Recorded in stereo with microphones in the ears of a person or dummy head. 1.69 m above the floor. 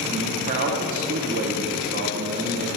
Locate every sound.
0.1 s a man speaking: 45° right (ahead or behind), 0.9 m